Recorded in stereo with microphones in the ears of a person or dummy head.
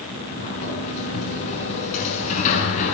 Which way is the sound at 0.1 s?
35° left (ahead or behind).